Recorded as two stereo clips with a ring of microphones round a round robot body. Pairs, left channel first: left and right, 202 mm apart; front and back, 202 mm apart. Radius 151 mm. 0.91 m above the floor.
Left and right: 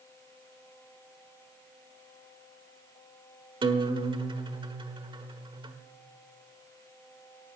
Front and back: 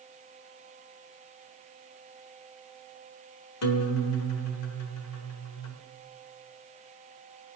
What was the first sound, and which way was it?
A guitar, 20° right.